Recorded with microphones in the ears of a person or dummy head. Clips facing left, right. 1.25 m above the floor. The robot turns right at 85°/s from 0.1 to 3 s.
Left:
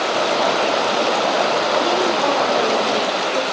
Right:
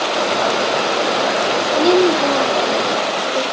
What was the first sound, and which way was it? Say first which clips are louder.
A woman speaking: right 5 dB; 65° right.